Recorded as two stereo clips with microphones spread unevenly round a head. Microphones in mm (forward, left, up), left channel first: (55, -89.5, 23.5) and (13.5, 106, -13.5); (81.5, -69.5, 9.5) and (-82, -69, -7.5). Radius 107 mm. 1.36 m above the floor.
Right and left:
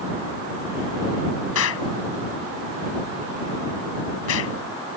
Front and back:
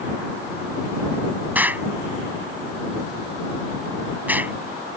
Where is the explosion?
100° right.